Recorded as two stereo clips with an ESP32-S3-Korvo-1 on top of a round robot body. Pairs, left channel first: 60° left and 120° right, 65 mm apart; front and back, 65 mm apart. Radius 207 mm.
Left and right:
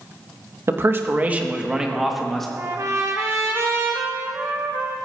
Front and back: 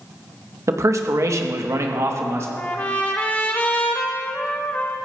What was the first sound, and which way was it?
A man speaking, 155° right.